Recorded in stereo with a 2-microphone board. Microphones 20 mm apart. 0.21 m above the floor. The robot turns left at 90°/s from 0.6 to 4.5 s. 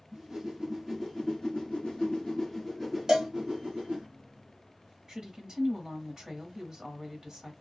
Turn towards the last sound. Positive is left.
turn(degrees=-35)  # may be behind; listen again after turning